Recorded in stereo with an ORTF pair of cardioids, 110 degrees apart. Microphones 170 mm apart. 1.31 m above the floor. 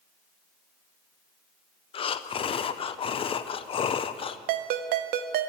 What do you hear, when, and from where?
1.9 s breathing: 35° left, 0.6 m
4.5 s a ringtone: 65° right, 0.7 m